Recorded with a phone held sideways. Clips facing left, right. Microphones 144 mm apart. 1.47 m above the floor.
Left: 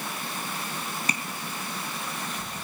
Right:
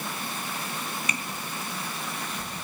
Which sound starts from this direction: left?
Tapping, at 1.1 s.